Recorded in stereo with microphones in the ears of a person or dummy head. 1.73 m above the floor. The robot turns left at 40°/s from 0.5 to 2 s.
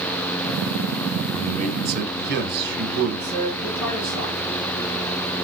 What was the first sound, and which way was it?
A man speaking, 35° right (ahead or behind).